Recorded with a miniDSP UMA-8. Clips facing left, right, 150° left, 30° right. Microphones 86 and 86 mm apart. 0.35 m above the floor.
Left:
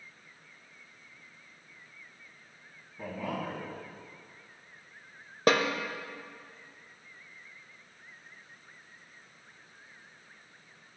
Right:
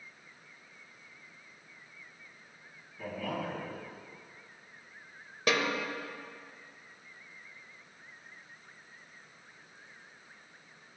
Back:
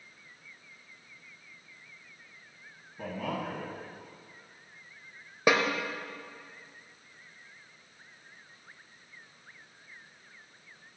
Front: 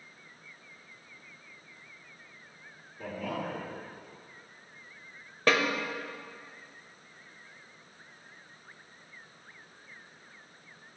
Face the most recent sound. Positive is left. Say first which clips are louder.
# left 5 dB, back 1 dB
turn(degrees=80)